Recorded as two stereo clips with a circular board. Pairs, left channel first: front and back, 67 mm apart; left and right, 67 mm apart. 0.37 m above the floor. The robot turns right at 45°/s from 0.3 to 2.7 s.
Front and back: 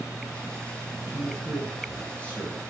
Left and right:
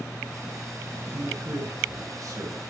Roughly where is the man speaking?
Behind right.